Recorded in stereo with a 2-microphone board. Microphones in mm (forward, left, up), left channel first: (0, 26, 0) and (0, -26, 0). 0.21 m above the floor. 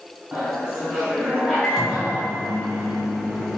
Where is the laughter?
15° right (ahead or behind), 2.0 m.